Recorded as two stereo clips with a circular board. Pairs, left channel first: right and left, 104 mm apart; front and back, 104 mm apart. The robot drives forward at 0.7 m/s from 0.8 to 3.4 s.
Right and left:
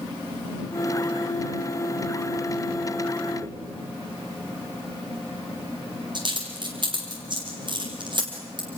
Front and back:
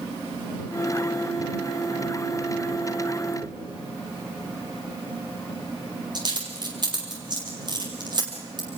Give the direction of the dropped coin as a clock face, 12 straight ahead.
8 o'clock.